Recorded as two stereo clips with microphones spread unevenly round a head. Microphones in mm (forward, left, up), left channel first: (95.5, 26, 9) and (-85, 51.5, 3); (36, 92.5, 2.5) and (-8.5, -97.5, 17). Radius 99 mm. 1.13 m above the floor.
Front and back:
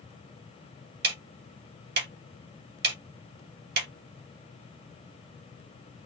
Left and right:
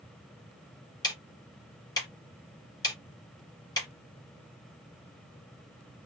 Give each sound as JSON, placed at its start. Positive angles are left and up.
{"t": 1.0, "sound": "ticking", "azimuth_deg": 150, "distance_m": 1.1}